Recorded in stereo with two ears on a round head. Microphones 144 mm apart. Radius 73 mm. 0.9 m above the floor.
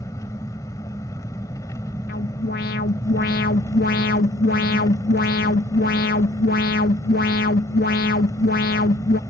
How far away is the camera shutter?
I don't hear a camera shutter.